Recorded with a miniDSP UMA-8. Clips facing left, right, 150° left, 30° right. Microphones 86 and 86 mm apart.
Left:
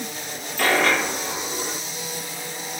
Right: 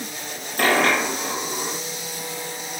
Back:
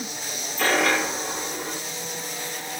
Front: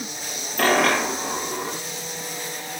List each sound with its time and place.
0.6 s a dropped coin: 50° right, 5.5 m